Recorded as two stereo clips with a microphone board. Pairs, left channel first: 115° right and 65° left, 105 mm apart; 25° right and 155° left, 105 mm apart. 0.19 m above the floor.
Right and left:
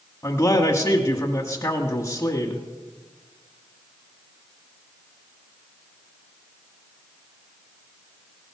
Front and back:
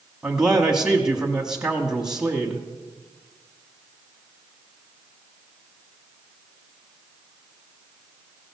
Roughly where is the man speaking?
Behind right.